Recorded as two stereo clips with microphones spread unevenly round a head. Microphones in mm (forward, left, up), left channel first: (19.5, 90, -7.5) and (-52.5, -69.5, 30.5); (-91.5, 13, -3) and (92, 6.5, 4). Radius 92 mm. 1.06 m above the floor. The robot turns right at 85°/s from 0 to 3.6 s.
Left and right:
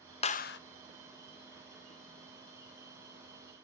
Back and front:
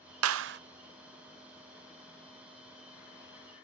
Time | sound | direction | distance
0.2 | a clap | 5° left | 0.6 m